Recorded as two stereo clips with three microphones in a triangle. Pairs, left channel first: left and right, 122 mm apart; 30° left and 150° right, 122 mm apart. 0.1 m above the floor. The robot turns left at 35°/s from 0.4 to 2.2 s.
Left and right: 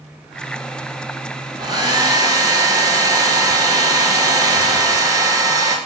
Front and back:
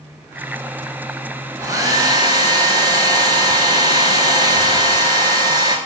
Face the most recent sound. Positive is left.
turn(degrees=-125)